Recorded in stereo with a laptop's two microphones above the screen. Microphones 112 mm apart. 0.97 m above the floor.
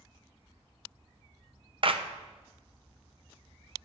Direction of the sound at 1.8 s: 50° right (ahead or behind).